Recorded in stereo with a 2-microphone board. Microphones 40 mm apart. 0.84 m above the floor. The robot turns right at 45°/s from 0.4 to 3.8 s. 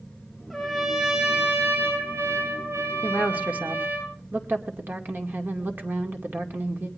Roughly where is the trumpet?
Behind.